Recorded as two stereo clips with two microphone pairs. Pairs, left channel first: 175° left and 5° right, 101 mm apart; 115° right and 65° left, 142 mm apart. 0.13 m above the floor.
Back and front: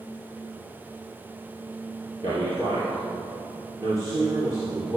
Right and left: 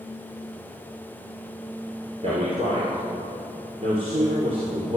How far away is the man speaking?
About 3 m.